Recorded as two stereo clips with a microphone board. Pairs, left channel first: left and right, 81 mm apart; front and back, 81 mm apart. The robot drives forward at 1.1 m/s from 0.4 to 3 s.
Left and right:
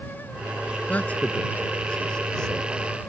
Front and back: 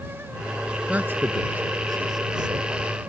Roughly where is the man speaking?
Behind left.